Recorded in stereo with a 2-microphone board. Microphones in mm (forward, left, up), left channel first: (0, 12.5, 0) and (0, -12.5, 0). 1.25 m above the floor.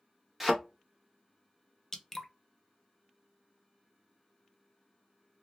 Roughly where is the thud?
Centre.